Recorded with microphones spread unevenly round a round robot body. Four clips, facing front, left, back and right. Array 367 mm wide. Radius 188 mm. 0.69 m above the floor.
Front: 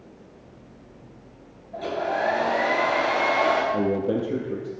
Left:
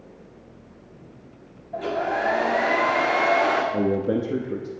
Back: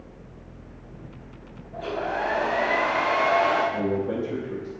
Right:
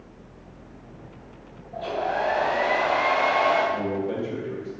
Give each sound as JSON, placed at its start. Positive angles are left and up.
{"t": 1.7, "sound": "a hair dryer", "azimuth_deg": 85, "distance_m": 1.8}
{"t": 3.7, "sound": "a man speaking", "azimuth_deg": 75, "distance_m": 1.0}